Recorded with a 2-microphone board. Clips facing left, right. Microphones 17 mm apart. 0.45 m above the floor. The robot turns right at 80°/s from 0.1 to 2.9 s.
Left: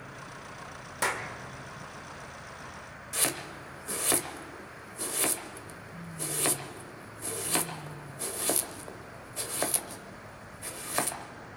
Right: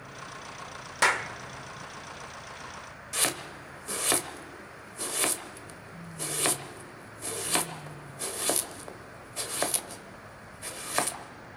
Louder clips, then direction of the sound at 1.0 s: Right 6 dB; 35° right (ahead or behind).